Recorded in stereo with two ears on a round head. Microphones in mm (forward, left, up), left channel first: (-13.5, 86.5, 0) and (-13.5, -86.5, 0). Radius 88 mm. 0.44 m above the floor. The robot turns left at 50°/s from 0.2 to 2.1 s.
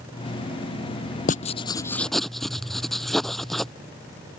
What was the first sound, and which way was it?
Writing, 40° left.